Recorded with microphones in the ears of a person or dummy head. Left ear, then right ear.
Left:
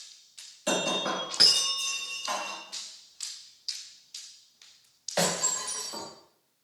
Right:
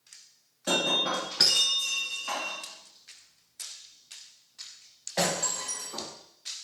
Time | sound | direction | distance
0.7 | breaking glass | 20° left (ahead or behind) | 0.9 m